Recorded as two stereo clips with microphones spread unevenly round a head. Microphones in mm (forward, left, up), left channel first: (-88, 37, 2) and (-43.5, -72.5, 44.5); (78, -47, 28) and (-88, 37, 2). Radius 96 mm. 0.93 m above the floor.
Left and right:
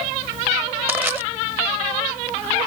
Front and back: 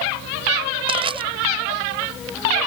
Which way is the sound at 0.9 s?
145° right.